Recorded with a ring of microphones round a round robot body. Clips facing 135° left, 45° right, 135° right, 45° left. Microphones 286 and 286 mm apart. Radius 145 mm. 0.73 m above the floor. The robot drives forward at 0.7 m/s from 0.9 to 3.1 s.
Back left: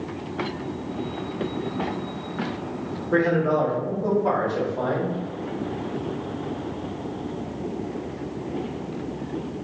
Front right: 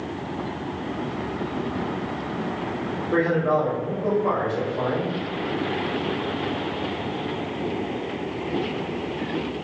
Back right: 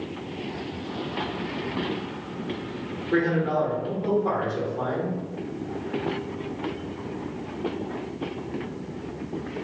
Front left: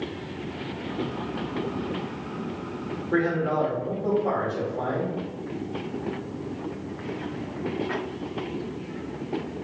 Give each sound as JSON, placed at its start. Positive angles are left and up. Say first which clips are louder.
{"t": 3.1, "sound": "a man speaking", "louder": "back left 1 dB, back right 1 dB", "azimuth_deg": 160, "distance_m": 1.4}